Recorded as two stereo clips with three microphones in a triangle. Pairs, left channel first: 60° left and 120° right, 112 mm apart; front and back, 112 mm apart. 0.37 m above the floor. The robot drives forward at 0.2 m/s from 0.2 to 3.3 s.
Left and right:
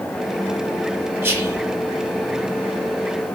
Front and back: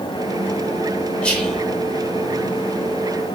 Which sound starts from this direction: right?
Whispering, at 1.2 s.